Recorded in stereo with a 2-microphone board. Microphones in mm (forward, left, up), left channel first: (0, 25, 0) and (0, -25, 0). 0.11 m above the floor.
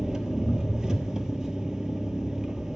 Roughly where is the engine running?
Centre.